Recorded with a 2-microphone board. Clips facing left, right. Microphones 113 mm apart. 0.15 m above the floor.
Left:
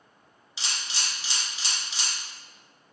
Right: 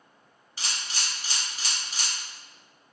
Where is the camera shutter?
50° right (ahead or behind), 1.0 m.